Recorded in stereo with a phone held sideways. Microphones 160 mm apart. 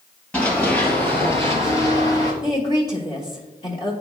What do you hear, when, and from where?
0.3 s running footsteps: 10° left (ahead or behind), 1.8 m; by 2.3 s 25° left (ahead or behind), 1.6 m
2.4 s a woman speaking: 40° left (ahead or behind), 1.2 m